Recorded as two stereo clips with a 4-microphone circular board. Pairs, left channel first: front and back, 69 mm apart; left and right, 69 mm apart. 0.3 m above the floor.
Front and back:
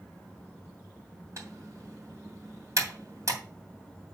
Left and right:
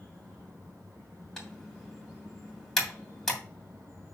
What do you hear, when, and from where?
1.4 s typing on a keyboard: 170° left, 2.5 m